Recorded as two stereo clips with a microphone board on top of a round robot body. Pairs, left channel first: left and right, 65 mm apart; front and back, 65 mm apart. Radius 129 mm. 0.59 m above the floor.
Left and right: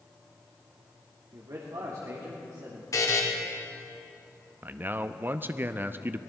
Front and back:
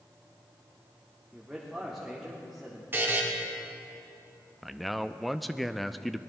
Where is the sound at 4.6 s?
90° right, 0.6 m.